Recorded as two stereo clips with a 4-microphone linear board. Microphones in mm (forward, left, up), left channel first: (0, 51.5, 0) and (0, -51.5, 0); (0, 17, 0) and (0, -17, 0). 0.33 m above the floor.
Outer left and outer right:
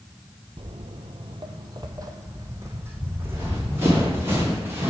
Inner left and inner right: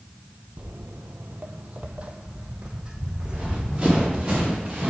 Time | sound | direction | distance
0.6 | footsteps | 55° right (ahead or behind) | 0.5 m
3.2 | running footsteps | 25° right (ahead or behind) | 4 m